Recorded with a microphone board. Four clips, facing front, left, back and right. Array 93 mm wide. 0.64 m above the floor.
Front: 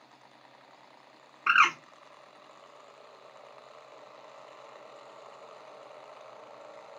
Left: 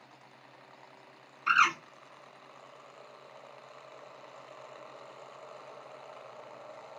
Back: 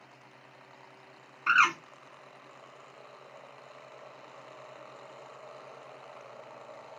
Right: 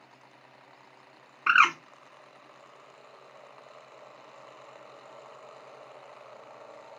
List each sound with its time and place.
1.5 s a bird: 70° right, 0.7 m